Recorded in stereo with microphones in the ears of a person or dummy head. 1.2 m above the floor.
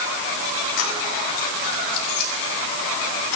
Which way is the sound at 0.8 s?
85° left.